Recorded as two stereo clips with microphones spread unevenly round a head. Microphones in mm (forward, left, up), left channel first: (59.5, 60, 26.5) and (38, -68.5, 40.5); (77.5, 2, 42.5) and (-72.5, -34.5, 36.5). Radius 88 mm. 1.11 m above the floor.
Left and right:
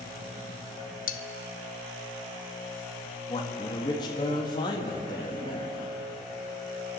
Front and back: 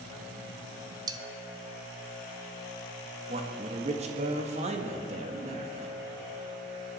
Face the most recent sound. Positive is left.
turn(degrees=145)